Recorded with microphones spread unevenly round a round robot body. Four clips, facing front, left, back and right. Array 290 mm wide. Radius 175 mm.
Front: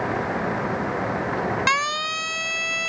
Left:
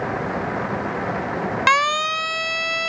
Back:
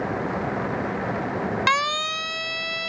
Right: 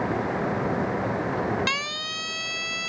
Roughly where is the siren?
Left.